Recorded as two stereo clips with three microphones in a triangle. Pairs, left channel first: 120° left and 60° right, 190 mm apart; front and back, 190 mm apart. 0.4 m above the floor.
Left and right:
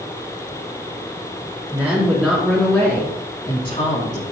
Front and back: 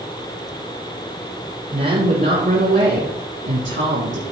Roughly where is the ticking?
I don't hear ticking.